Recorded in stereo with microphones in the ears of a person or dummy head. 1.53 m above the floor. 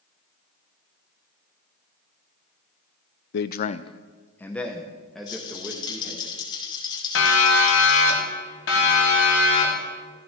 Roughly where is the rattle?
Left.